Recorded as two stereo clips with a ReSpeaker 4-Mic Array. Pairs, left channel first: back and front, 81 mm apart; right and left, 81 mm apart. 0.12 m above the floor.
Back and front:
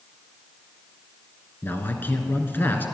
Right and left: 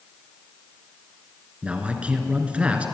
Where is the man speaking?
150° left, 1.6 m.